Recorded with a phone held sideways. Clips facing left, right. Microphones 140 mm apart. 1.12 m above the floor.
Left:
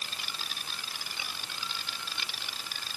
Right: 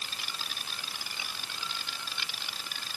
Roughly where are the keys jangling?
I don't hear keys jangling.